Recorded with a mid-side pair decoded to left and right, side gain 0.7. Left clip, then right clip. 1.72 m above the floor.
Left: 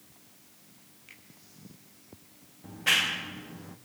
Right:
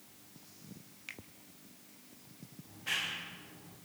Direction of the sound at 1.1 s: 40° right.